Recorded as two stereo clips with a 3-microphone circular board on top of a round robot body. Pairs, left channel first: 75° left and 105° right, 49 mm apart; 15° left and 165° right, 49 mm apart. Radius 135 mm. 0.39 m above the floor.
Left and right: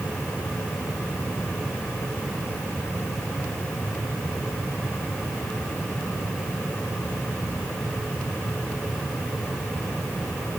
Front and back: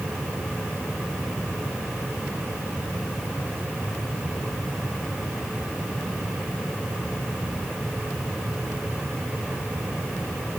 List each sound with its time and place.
Only background noise.